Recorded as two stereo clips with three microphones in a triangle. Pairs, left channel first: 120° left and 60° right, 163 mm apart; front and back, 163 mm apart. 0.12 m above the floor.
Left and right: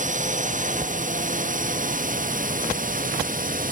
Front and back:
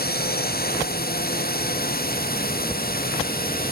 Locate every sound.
0.0 s a drone: 20° right; by 3.7 s 25° right